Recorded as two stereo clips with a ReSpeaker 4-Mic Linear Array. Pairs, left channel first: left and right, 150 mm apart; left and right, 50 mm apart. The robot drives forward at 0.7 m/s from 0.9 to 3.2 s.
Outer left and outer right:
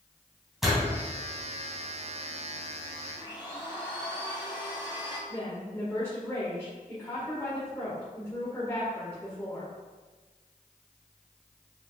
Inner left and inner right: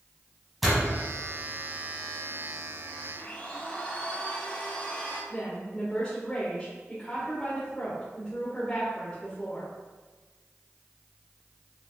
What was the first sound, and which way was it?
A door slam, centre (ahead or behind).